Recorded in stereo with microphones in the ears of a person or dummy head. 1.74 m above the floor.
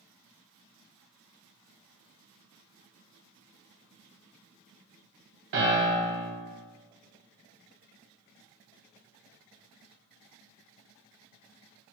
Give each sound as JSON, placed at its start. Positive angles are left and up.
{"t": 5.5, "sound": "a piano", "side_deg": -60, "distance_m": 0.8}